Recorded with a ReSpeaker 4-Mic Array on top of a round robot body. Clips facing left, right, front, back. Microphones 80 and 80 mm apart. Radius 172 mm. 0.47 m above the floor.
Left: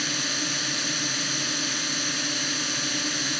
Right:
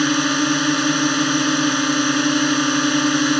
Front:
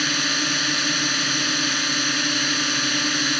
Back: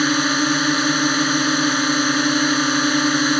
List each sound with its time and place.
0.0 s a drone: 125° right